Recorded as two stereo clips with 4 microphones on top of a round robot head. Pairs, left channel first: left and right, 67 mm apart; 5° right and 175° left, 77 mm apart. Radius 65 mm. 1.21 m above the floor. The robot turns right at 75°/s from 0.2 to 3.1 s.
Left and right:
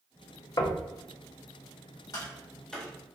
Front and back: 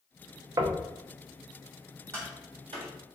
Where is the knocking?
125° left, 0.6 m; by 0.8 s 145° left, 0.6 m.